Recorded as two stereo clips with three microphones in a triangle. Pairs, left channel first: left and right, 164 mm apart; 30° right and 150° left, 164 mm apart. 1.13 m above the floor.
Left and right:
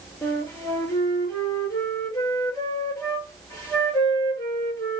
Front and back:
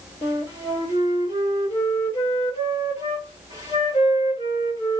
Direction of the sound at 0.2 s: 20° left.